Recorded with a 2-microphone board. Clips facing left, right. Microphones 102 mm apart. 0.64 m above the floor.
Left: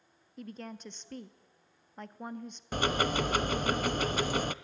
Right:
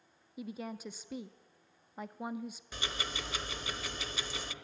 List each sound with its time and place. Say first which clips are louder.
0.4 s a woman speaking: right 2 dB; 10° right (ahead or behind), 0.5 m
2.7 s ticking: left 14 dB; 55° left (ahead or behind), 0.5 m